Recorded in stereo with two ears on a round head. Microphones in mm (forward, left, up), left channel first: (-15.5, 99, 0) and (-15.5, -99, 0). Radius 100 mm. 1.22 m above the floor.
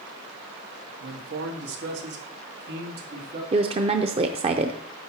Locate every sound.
1.0 s a man speaking: 65° right (ahead or behind), 1.5 m; by 3.4 s 55° right (ahead or behind), 2.5 m
3.5 s a woman speaking: 30° right (ahead or behind), 0.5 m